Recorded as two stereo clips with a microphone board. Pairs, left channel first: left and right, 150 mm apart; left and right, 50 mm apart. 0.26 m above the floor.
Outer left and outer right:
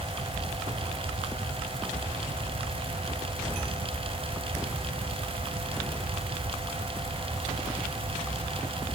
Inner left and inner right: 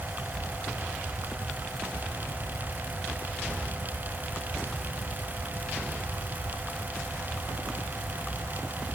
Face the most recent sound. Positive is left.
No sound to turn to.